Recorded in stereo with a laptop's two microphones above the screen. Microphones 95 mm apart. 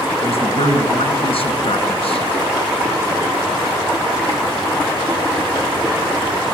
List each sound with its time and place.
0.2 s a man speaking: 85° left, 4.5 m